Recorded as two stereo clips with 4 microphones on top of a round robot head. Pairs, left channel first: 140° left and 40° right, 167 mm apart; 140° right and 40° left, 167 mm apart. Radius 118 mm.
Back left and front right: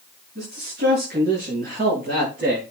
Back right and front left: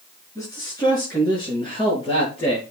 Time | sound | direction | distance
0.3 | a man speaking | 70° right | 5.5 m